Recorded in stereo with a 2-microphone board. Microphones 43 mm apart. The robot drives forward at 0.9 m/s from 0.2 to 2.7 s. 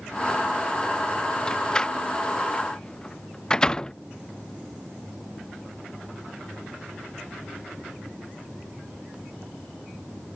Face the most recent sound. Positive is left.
turn(degrees=15)  # may be behind; listen again after turning